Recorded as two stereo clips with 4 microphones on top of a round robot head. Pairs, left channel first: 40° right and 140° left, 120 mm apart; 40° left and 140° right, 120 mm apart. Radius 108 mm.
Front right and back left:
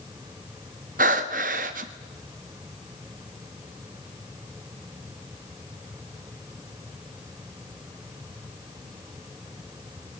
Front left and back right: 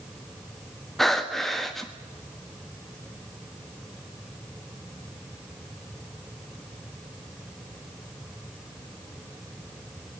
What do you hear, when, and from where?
1.0 s breathing: 130° left, 1.3 m